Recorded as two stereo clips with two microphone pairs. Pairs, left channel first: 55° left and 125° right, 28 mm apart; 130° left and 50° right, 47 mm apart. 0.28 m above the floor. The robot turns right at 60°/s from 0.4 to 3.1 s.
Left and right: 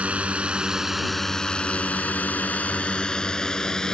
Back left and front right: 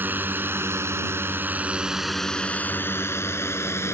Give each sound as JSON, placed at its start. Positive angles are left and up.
{"t": 0.0, "sound": "a drone", "azimuth_deg": -90}